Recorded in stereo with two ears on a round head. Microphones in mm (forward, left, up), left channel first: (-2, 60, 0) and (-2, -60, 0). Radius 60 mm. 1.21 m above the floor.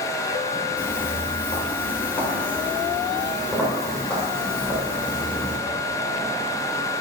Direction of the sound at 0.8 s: 15° left (ahead or behind).